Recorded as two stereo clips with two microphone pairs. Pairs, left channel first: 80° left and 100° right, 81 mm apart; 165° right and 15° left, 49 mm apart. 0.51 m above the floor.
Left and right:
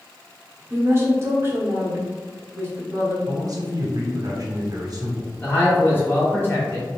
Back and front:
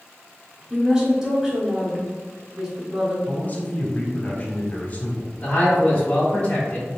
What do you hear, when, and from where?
0.7 s a woman speaking: 55° right, 1.1 m
3.3 s a man speaking: 115° right, 1.0 m
5.4 s a man speaking: 135° left, 1.5 m